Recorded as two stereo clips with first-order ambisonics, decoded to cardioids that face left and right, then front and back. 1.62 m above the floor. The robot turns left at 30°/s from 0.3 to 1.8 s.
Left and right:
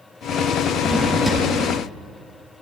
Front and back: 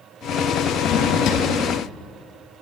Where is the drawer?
Straight ahead, 1.7 m; by 1.5 s 20° right, 1.7 m.